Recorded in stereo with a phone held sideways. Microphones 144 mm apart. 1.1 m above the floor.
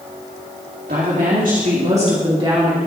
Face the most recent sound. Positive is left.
turn(degrees=-30)  # may be behind; listen again after turning